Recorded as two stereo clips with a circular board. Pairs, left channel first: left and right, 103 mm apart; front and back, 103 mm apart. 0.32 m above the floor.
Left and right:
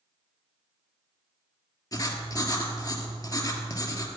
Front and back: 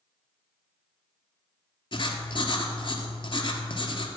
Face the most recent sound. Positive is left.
turn(degrees=35)